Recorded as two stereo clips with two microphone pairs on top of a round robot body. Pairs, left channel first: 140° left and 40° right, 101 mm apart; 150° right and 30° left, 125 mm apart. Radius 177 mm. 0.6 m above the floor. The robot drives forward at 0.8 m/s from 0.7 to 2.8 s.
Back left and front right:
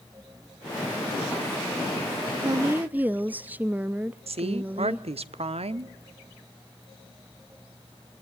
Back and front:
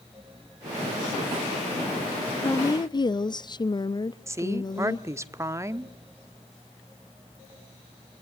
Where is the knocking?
I don't hear knocking.